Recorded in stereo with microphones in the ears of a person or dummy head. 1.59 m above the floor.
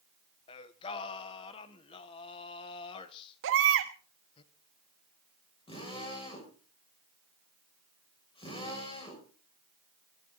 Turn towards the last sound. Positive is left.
turn(degrees=30)  # may be behind; listen again after turning